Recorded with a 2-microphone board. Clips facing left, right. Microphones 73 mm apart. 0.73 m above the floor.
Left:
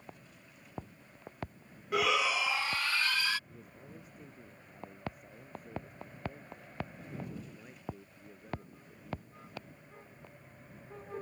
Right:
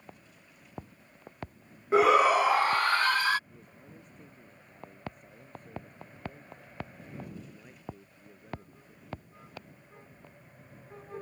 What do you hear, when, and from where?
1.9 s a shout: 30° right (ahead or behind); by 3.4 s 50° right (ahead or behind)
3.5 s a man speaking: 5° left (ahead or behind)